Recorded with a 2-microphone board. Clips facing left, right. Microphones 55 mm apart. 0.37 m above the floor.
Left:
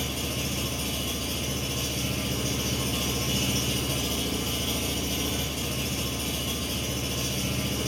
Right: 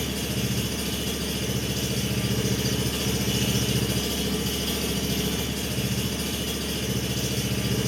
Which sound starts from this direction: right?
An engine running, at 0.0 s.